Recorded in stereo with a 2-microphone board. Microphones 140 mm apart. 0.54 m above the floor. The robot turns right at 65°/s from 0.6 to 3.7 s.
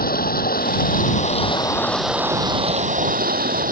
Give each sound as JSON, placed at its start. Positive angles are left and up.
{"t": 0.0, "sound": "running water", "azimuth_deg": 85}